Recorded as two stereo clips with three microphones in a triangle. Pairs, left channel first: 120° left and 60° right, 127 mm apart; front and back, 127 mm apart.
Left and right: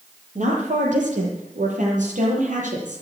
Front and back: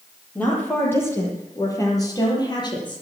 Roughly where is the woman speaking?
Right.